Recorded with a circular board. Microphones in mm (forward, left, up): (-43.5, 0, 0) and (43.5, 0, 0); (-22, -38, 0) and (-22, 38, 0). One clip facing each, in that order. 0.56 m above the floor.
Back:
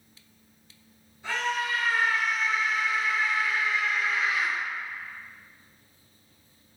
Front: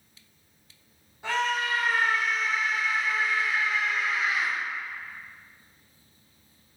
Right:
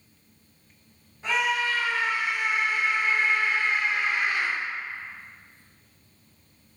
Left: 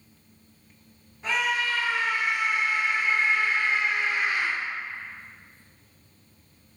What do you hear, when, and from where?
1.2 s a scream: 10° right, 1.5 m; by 4.5 s 70° right, 2 m